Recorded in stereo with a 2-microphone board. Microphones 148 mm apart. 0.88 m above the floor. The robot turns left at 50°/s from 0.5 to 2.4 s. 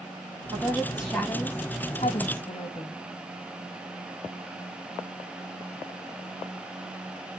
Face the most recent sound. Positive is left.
turn(degrees=105)